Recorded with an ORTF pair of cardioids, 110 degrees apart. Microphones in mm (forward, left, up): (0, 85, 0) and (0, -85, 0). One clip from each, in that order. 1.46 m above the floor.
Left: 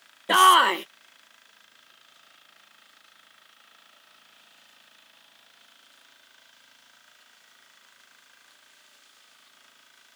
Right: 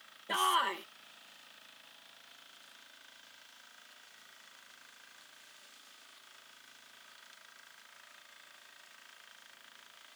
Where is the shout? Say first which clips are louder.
Left 14 dB; 65° left.